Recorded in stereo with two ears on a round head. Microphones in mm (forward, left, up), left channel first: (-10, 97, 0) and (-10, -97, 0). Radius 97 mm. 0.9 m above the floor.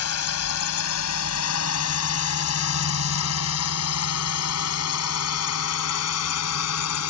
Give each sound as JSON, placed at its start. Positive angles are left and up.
{"t": 0.0, "sound": "a drone", "side_deg": 80}